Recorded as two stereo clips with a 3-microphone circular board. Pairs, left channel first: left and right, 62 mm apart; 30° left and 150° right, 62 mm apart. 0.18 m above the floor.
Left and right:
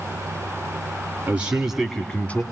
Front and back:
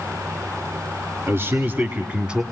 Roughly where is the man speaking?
Behind right.